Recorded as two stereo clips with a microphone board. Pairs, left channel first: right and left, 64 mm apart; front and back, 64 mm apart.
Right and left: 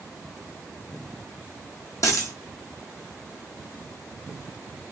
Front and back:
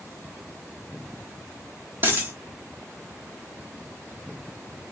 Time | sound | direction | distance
2.0 | a dropped coin | 125° right | 1.1 m